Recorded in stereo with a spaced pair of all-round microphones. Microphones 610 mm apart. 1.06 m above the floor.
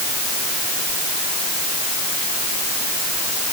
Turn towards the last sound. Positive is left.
No sound to turn to.